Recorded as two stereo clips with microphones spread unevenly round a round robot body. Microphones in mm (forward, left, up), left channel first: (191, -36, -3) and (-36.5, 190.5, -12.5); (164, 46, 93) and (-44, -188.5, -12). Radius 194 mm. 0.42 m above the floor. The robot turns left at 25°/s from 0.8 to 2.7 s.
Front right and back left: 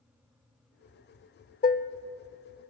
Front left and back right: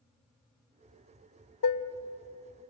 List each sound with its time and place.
1.6 s dishes clattering: 15° left, 0.8 m; by 1.9 s 5° left, 0.8 m